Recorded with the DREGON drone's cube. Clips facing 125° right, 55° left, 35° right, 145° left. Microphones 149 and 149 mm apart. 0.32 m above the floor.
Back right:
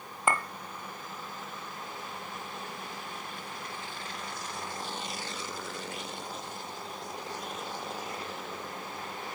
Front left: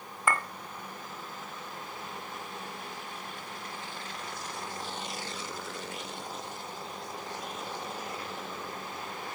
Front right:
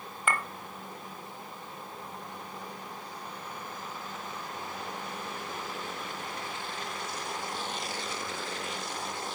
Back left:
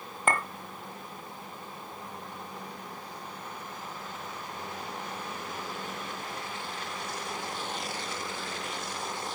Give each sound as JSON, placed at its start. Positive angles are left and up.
{"t": 0.3, "sound": "a clink", "azimuth_deg": 175, "distance_m": 1.1}